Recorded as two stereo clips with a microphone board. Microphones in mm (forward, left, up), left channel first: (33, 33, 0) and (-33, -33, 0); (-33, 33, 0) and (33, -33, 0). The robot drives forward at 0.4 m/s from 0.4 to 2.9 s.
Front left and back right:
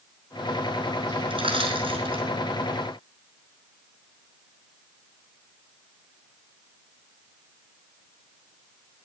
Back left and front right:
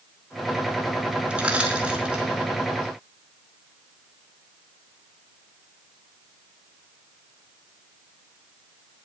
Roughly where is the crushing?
Behind right.